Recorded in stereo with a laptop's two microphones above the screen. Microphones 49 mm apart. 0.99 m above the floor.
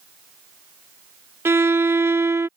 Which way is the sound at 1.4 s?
65° right (ahead or behind).